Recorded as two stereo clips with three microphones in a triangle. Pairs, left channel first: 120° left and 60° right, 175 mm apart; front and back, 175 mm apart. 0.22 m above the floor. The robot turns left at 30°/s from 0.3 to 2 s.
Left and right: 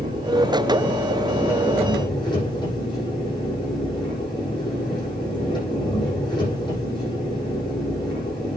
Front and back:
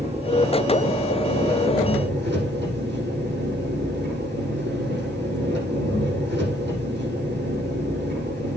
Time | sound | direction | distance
0.0 | an engine running | 125° right | 9.5 m